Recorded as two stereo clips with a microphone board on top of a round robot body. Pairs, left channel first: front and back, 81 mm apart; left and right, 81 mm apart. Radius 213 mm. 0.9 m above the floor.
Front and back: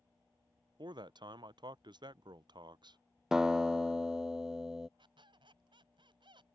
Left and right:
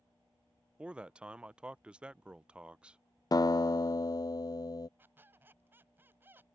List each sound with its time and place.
0.8 s a man speaking: 165° right
3.3 s a guitar: 100° left
5.0 s a squeak: 155° right